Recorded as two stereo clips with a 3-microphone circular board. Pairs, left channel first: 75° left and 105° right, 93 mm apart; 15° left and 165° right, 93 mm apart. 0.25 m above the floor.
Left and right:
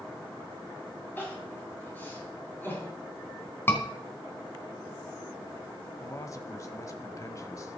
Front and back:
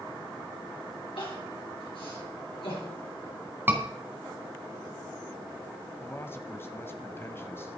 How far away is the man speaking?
About 1.3 m.